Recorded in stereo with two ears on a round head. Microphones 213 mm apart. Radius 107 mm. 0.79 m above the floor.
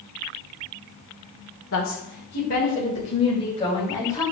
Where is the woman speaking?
65° left (ahead or behind), 2 m; by 4.2 s 15° left (ahead or behind), 4.5 m.